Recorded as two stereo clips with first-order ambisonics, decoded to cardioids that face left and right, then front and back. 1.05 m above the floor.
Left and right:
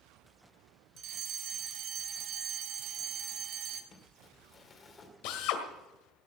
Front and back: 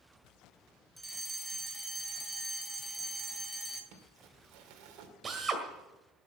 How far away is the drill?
About 1.7 m.